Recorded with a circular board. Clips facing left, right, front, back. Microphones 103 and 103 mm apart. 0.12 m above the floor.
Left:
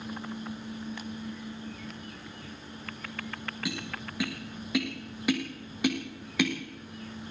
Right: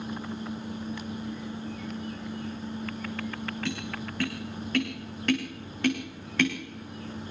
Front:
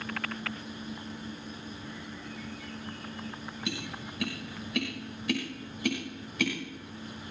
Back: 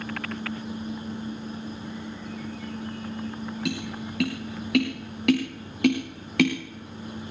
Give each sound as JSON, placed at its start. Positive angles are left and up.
{"t": 3.6, "sound": "tapping", "azimuth_deg": 170, "distance_m": 8.5}